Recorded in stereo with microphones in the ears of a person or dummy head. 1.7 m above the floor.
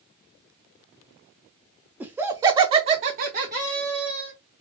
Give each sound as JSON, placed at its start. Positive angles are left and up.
{"t": 2.0, "sound": "laughter", "side_deg": -10, "distance_m": 0.8}